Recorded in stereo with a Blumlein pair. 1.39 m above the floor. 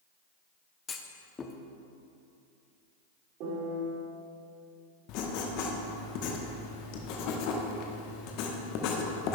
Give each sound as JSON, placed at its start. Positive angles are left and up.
{"t": 0.9, "sound": "a clunk", "azimuth_deg": 20, "distance_m": 0.7}
{"t": 3.4, "sound": "a piano", "azimuth_deg": -40, "distance_m": 2.5}
{"t": 5.1, "sound": "writing", "azimuth_deg": 40, "distance_m": 1.1}